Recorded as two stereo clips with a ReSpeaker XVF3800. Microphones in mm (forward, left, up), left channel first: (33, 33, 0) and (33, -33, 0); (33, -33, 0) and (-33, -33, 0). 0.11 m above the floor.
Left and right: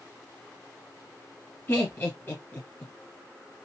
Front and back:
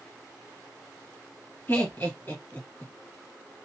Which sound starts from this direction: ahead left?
Laughter, at 1.7 s.